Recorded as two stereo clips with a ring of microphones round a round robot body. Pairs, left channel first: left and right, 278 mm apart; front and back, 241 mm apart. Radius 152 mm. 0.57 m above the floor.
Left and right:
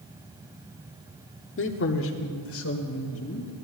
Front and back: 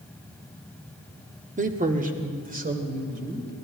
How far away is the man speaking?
About 1.3 m.